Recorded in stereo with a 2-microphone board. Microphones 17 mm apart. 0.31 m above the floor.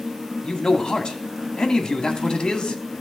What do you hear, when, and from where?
0.4 s a man speaking: 60° left (ahead or behind), 1.8 m